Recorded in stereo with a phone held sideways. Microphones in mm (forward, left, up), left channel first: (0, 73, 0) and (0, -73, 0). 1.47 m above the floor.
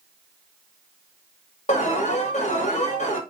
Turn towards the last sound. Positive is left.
turn(degrees=50)  # may be behind; listen again after turning